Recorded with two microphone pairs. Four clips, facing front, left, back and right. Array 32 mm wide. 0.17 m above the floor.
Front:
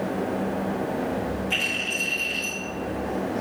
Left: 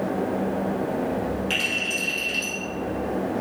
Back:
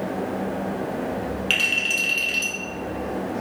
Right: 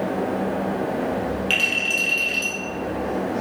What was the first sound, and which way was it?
A clink, 155° right.